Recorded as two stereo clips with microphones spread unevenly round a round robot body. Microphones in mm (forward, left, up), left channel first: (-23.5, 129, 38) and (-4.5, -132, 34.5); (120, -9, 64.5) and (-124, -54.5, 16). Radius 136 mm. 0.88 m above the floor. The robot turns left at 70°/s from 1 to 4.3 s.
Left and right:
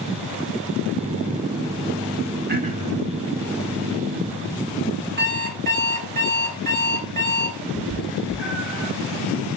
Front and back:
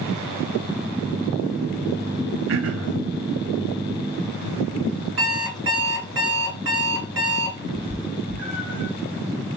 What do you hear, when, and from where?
2.5 s throat clearing: 140° right, 0.6 m; by 3.0 s 170° right, 0.6 m
5.2 s an alarm clock: 140° right, 2 m
7.7 s a cat meowing: 170° right, 0.8 m